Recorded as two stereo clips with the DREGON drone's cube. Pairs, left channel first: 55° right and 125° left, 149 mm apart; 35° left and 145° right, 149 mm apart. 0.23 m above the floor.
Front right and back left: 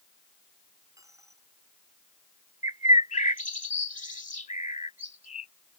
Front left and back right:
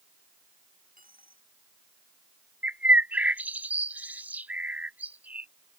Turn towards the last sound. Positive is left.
turn(degrees=-70)